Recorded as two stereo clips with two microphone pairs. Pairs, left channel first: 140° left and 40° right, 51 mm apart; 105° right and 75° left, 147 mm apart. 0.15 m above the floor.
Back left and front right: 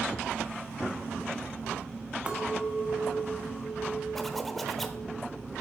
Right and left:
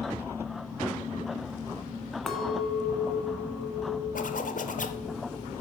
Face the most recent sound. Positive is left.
turn(degrees=-130)